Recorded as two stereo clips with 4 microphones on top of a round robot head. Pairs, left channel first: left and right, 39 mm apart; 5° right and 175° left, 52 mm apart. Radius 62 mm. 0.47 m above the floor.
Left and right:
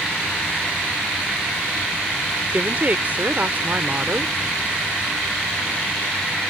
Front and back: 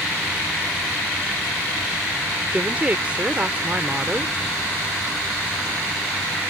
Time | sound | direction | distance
2.5 | a woman speaking | 125° right | ?